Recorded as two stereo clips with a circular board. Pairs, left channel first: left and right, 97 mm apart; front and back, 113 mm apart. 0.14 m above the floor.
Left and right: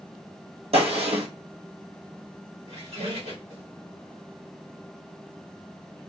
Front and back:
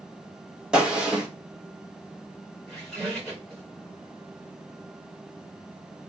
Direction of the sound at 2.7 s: 85° right.